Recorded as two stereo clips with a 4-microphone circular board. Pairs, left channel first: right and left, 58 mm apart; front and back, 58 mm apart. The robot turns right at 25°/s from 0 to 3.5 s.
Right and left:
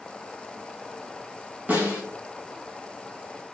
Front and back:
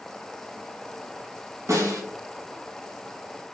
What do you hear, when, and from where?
1.7 s a snare drum: 155° left, 2.0 m; by 2.0 s 160° left, 2.0 m